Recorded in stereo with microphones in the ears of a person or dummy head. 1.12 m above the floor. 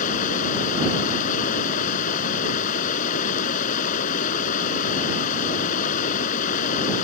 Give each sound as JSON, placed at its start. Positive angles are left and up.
{"t": 0.0, "sound": "running water", "side_deg": 45}